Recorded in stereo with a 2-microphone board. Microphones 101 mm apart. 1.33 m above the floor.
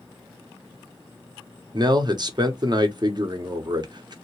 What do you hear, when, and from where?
1.7 s a man speaking: 45° right (ahead or behind), 0.7 m